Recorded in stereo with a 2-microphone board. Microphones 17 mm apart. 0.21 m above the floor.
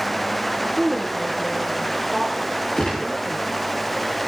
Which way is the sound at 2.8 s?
55° left (ahead or behind).